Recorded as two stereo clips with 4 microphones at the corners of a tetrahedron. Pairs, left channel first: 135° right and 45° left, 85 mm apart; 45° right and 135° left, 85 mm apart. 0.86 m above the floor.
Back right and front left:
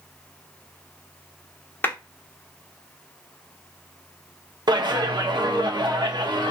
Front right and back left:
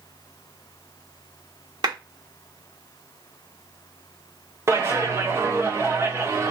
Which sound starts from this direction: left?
A clap, at 4.7 s.